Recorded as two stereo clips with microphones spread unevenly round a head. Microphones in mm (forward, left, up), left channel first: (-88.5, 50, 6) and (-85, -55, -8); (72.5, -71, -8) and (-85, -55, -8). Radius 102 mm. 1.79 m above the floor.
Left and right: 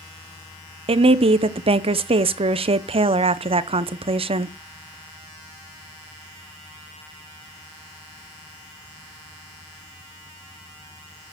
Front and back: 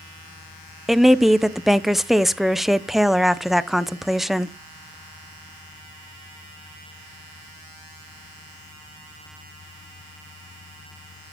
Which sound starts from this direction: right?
A woman speaking, at 0.9 s.